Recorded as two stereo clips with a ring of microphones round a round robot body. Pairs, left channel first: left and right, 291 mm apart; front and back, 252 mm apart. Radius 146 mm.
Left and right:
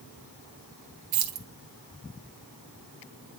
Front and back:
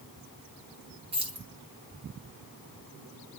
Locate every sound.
1.1 s keys jangling: 110° right, 1.3 m